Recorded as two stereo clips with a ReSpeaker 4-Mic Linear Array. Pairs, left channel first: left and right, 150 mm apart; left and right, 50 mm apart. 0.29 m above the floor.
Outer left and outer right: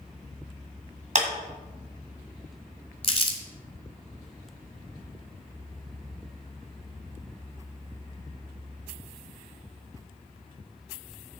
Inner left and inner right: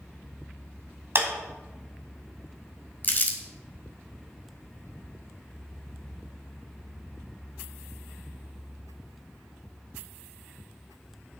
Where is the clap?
55° right (ahead or behind), 1.7 m.